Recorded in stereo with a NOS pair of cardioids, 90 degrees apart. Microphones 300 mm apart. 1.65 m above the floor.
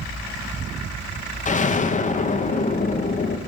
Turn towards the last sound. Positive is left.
turn(degrees=25)